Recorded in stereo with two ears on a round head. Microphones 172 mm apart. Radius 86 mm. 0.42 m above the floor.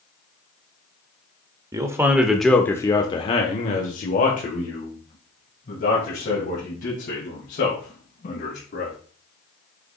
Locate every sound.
1.7 s a man speaking: 20° right (ahead or behind), 1.0 m; by 9.0 s 50° left (ahead or behind), 4 m